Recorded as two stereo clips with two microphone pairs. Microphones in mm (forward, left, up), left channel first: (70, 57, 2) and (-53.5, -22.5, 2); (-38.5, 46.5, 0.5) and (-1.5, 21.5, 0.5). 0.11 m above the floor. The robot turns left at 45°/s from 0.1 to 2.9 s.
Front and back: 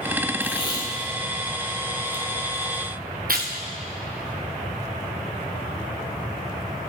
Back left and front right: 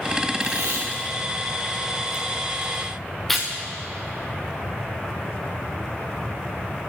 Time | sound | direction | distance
0.4 | tape being pulled | 20° right | 2 m